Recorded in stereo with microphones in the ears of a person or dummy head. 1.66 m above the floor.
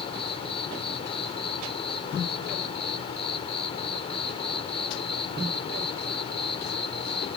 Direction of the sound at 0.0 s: 35° left (ahead or behind).